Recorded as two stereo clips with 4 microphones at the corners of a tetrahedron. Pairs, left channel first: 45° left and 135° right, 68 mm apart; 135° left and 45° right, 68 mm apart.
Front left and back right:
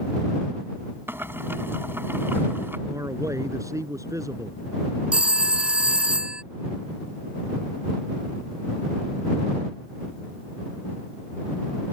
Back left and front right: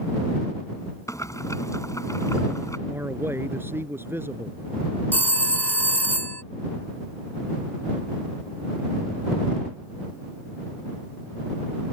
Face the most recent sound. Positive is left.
turn(degrees=170)